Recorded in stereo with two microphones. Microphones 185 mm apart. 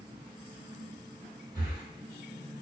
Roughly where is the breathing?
Centre.